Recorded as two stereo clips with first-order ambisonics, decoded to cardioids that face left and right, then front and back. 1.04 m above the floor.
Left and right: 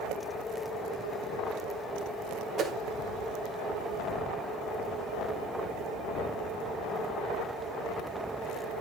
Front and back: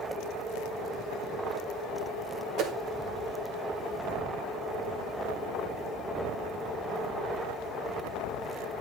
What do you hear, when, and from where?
2.6 s a whoosh: 145° right, 0.8 m